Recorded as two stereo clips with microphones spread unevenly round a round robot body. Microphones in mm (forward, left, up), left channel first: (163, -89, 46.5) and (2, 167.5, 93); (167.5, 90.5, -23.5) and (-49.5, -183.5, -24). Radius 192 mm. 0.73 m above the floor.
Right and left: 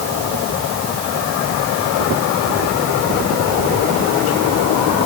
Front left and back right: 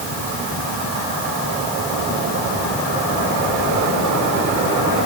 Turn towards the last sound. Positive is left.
No sound to turn to.